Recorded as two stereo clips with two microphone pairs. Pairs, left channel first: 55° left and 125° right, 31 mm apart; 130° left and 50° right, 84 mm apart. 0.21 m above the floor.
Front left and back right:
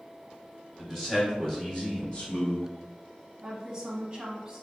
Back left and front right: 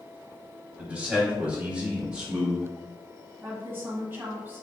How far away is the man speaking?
About 1.2 m.